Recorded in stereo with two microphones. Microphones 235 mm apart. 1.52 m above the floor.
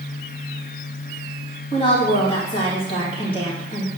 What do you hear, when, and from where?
1.7 s a woman speaking: 25° left (ahead or behind), 2.5 m